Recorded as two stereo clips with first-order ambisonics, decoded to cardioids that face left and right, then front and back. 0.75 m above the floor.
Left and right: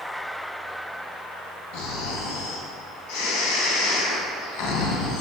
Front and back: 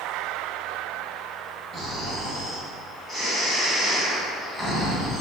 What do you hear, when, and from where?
1.7 s snoring: 95° left, 2.5 m